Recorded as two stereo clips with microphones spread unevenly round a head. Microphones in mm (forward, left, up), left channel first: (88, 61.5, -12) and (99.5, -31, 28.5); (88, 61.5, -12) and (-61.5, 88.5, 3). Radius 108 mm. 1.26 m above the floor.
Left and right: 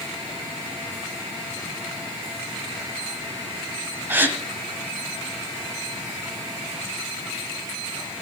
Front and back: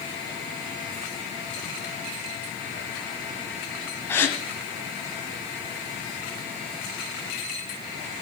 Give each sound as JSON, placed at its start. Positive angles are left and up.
{"t": 4.1, "sound": "a gasp", "azimuth_deg": -90, "distance_m": 1.3}